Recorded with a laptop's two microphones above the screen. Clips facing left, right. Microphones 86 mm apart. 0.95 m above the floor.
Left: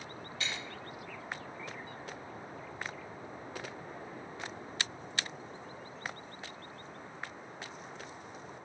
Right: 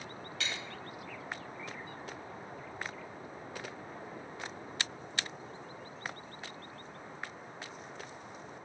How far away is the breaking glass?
About 3.5 m.